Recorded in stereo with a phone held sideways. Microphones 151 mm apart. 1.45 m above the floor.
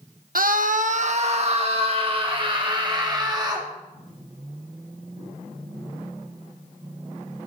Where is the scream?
75° right (ahead or behind), 1.0 m; by 3.7 s 30° right (ahead or behind), 3.5 m.